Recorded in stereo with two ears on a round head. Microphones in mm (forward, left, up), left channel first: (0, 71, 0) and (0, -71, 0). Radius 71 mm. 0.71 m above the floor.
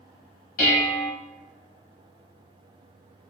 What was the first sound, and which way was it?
Dishes clattering, 55° left (ahead or behind).